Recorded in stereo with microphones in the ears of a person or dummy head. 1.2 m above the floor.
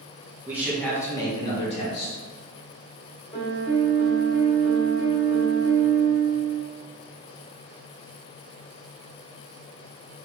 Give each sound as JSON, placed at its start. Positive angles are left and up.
{"t": 0.5, "sound": "a man speaking", "side_deg": -15, "distance_m": 0.6}
{"t": 3.3, "sound": "a piano", "side_deg": 25, "distance_m": 0.8}